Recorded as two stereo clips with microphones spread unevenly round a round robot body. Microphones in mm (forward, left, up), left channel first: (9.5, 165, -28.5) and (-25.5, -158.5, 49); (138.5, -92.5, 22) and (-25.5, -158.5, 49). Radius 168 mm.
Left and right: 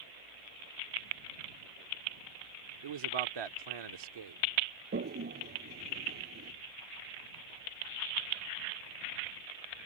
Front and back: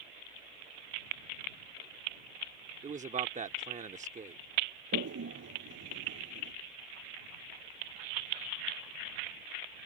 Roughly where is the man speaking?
Right.